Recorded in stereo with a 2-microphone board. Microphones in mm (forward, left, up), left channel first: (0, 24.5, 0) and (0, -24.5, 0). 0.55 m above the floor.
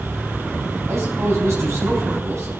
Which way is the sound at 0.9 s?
75° right (ahead or behind).